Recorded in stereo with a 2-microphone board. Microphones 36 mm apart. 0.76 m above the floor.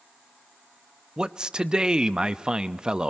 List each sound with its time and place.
1.2 s a man speaking: 25° right (ahead or behind), 0.5 m